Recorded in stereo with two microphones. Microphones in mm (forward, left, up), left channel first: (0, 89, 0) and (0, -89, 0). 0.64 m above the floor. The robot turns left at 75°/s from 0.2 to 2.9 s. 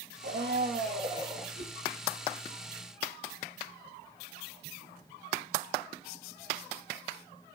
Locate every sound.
0.2 s a blender: 85° right, 2.5 m; by 1.4 s 175° right, 2.5 m
1.6 s a whoosh: 80° right, 1.7 m; by 1.8 s 65° right (ahead or behind), 1.7 m